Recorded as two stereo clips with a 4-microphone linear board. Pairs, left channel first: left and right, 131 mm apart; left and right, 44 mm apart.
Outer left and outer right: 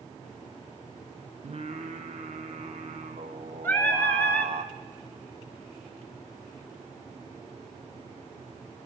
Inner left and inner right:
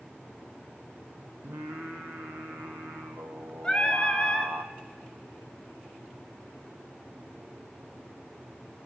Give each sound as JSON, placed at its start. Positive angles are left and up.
{"t": 1.4, "sound": "singing", "side_deg": -50, "distance_m": 1.1}
{"t": 3.6, "sound": "singing", "side_deg": 15, "distance_m": 1.5}